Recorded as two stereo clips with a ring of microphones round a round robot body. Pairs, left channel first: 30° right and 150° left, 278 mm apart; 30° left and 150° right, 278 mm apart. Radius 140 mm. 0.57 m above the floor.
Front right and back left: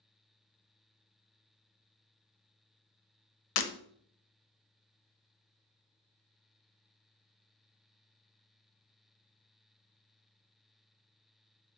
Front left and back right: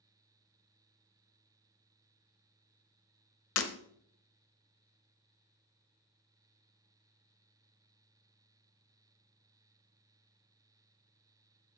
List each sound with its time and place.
3.6 s breaking glass: 15° right, 0.9 m